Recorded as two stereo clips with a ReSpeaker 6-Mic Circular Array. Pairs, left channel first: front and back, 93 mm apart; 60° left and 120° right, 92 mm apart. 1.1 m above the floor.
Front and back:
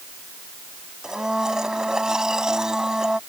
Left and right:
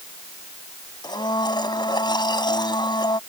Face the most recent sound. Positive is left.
turn(degrees=100)